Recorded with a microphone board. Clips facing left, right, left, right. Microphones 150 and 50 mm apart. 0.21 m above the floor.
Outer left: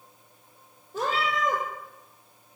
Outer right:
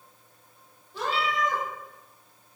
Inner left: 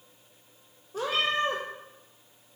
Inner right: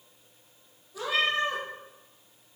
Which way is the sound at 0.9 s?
45° left (ahead or behind).